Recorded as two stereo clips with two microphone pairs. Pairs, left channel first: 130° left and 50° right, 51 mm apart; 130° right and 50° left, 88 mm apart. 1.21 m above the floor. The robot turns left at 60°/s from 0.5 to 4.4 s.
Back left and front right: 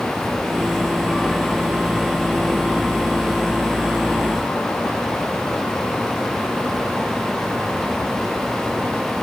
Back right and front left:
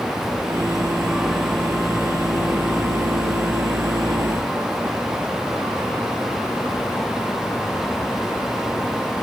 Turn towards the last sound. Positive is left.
No sound to turn to.